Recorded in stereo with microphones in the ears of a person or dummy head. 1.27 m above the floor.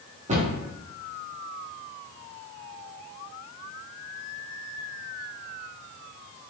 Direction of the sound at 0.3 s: 35° right (ahead or behind).